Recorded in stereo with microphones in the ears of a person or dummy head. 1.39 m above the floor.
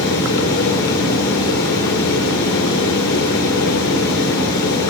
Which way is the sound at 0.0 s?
65° left (ahead or behind).